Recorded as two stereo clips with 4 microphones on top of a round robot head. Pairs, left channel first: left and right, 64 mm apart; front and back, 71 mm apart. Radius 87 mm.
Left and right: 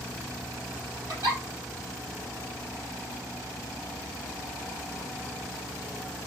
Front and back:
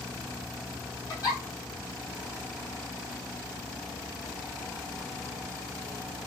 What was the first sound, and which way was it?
A giggle, 55° right.